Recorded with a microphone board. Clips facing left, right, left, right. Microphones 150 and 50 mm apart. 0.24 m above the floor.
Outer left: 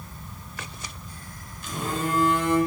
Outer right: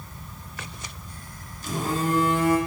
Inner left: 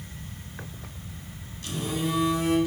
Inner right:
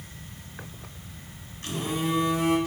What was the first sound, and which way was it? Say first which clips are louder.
A phone buzzing: outer right 3 dB, inner right 1 dB; 40° right (ahead or behind).